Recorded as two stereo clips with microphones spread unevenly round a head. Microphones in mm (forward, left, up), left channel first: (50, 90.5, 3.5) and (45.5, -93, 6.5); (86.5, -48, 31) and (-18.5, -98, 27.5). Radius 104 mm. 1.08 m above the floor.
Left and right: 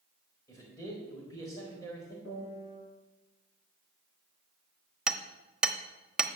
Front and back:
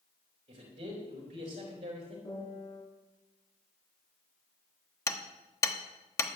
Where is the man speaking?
165° left, 4 m.